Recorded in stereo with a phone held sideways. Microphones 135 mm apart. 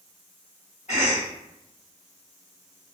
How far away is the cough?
About 1.1 m.